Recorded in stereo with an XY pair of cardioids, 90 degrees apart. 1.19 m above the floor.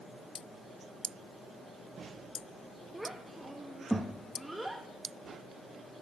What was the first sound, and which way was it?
A child speaking, 15° right.